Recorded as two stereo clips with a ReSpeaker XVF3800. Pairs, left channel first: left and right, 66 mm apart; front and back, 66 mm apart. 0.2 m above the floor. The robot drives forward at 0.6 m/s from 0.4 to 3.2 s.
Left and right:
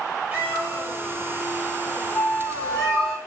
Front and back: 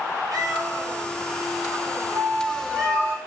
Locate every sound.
0.3 s a cat meowing: 160° right, 1.5 m; by 3.1 s 170° right, 3 m
2.1 s a flute: 165° left, 1.2 m; by 3.2 s 170° left, 1.8 m